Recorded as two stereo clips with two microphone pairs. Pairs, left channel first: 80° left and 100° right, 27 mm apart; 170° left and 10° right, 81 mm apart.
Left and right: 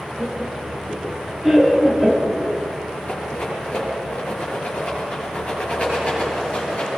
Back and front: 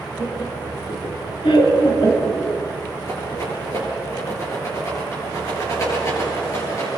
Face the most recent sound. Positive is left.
turn(degrees=115)